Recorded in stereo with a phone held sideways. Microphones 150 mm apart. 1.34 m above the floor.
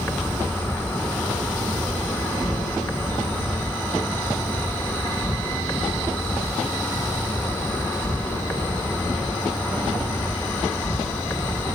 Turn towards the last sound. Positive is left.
turn(degrees=15)  # may be behind; listen again after turning